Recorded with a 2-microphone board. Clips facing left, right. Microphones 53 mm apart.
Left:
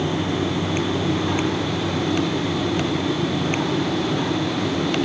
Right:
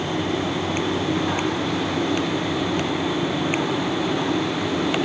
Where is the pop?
I don't hear a pop.